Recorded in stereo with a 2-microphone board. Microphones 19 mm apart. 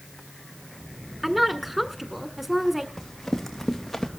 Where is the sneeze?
I don't hear a sneeze.